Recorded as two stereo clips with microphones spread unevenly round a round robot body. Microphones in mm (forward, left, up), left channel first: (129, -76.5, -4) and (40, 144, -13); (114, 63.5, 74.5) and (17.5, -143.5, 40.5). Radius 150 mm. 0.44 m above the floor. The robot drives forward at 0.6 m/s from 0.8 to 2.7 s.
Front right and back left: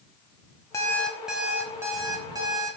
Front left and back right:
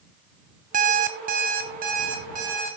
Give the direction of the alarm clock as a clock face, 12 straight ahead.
5 o'clock.